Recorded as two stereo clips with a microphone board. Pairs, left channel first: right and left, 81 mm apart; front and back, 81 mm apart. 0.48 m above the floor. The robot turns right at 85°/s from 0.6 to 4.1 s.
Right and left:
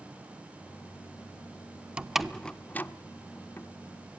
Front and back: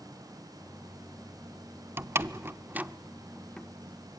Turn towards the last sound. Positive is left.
turn(degrees=-25)